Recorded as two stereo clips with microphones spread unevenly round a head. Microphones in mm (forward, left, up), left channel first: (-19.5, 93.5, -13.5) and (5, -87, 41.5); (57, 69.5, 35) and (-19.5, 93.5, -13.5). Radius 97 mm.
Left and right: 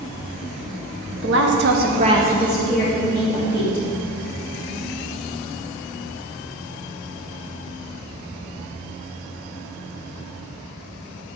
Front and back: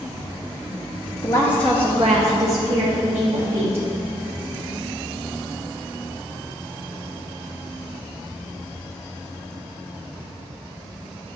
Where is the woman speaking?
65° right, 1.1 m; by 3.9 s 170° left, 2.5 m.